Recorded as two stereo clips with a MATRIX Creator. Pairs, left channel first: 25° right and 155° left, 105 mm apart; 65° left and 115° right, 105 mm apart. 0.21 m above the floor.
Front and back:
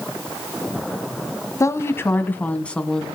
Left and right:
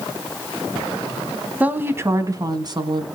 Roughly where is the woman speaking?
Ahead right.